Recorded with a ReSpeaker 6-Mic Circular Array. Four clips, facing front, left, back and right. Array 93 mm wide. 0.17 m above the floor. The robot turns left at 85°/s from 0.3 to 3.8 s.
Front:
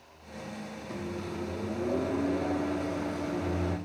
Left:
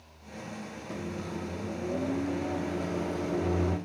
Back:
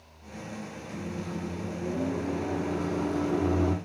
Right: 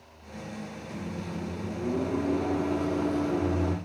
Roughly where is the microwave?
Ahead left.